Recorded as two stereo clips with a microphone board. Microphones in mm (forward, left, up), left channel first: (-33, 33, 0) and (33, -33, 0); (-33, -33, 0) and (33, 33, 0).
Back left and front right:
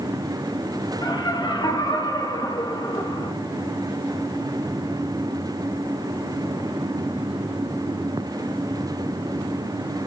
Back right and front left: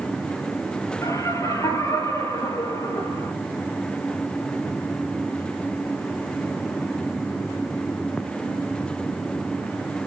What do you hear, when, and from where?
1.0 s laughter: 170° left, 3.5 m